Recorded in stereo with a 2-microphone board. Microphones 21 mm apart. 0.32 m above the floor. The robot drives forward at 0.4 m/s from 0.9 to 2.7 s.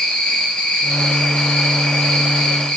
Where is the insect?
85° left, 2.5 m; by 2.8 s 80° left, 2.5 m.